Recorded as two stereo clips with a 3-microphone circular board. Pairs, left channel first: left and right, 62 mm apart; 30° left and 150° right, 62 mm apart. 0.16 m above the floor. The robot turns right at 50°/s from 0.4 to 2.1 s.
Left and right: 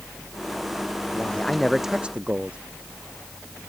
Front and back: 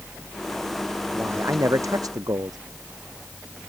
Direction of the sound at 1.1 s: 150° left.